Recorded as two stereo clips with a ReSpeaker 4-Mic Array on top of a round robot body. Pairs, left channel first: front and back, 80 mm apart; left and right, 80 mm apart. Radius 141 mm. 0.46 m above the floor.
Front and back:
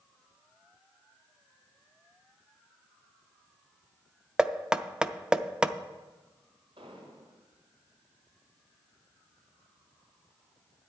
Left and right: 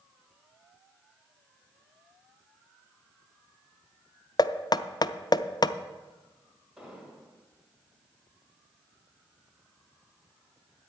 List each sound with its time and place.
4.4 s knocking: 100° left, 0.6 m
6.8 s an explosion: 175° right, 4.5 m